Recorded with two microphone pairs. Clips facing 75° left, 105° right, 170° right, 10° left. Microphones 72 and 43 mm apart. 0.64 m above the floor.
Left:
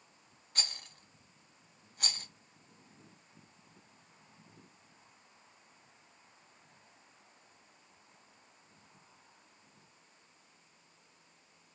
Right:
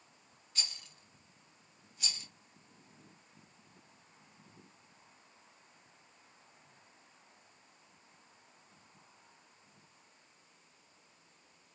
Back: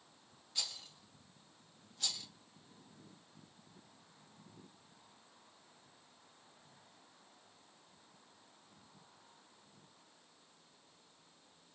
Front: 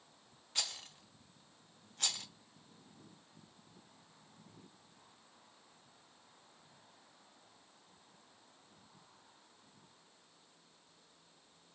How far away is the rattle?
About 0.5 m.